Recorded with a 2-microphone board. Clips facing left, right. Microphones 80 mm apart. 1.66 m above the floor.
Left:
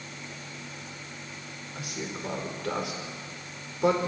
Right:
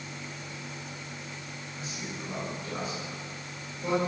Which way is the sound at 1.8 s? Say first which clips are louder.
Left 4 dB; 70° left (ahead or behind).